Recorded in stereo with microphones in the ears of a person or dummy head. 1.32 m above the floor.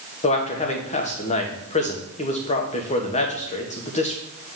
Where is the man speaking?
35° left (ahead or behind), 1.0 m.